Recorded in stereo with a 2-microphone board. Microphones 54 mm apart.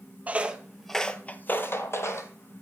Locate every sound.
0.3 s footsteps: 25° right (ahead or behind), 0.7 m; by 2.3 s 60° left (ahead or behind), 1.1 m